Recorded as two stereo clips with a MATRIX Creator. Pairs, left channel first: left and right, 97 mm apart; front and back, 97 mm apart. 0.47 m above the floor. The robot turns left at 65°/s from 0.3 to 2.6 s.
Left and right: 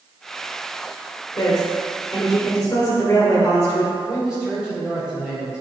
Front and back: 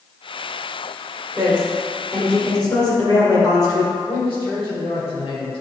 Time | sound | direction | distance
1.4 | a woman speaking | 120° left | 1.9 m
4.0 | a man speaking | 10° right | 2.5 m